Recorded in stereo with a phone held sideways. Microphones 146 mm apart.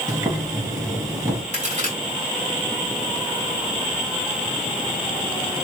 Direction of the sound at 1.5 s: 55° right (ahead or behind).